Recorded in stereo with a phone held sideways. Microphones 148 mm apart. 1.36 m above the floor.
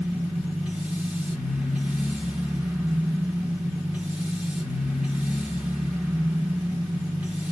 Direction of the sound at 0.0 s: 5° right (ahead or behind).